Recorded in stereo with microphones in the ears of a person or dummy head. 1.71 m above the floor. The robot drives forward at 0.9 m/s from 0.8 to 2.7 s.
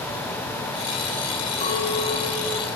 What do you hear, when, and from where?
1.6 s a clink: 40° left (ahead or behind), 3.5 m; by 2.6 s 55° left (ahead or behind), 2.5 m